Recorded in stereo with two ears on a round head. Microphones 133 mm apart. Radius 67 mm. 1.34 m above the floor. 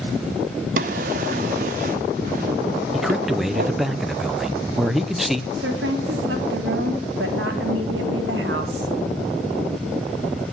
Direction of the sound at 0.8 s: 55° right (ahead or behind).